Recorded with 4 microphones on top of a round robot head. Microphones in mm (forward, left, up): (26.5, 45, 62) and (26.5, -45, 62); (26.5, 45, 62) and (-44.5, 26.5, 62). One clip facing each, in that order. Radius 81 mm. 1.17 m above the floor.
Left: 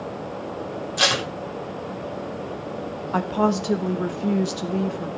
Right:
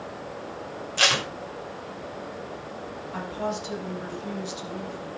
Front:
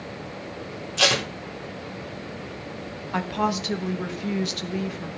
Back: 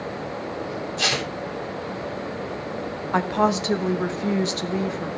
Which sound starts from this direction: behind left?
A woman speaking, at 3.1 s.